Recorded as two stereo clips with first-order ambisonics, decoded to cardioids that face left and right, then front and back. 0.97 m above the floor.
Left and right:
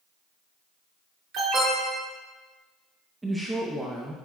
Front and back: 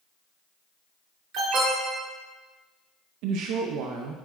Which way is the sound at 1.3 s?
135° right.